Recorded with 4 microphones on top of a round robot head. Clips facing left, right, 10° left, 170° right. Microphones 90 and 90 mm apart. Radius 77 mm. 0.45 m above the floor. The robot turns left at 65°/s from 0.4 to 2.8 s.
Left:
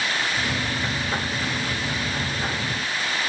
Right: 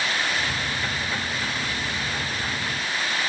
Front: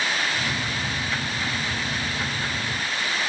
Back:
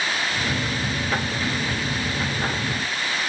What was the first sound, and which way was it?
Only background noise.